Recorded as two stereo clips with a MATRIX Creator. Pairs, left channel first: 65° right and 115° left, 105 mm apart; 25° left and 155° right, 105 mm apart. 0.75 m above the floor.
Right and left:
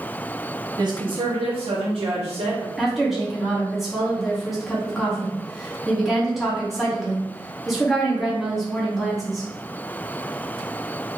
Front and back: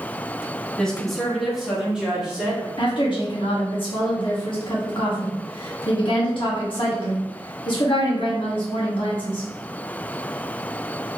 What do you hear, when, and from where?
0.8 s a woman speaking: 100° left, 0.7 m; by 2.7 s 120° left, 1.6 m
2.8 s a woman speaking: 25° left, 1.3 m